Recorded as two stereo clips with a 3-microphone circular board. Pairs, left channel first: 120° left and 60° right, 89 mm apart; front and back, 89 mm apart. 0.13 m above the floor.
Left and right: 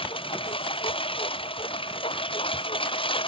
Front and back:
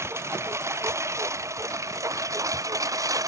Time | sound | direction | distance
0.0 | a lawn mower | 120° left | ?